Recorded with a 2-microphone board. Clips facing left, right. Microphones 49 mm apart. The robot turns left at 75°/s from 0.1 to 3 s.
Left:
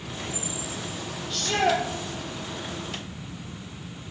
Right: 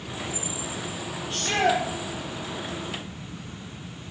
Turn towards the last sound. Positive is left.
turn(degrees=-160)